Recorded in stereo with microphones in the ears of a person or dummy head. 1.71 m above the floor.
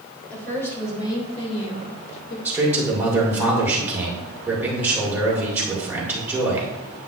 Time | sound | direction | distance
0.3 | a woman speaking | 10° left (ahead or behind) | 3 m
2.5 | a man speaking | 10° right (ahead or behind) | 2 m